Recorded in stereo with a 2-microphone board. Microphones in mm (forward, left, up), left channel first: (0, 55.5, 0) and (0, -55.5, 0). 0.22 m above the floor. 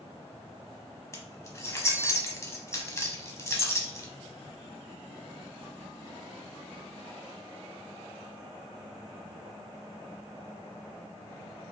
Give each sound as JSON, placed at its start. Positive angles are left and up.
{"t": 1.1, "sound": "keys jangling", "side_deg": 25, "distance_m": 0.8}